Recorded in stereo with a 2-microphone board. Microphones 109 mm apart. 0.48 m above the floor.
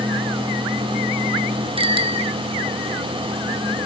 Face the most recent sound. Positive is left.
turn(degrees=-55)  # may be behind; listen again after turning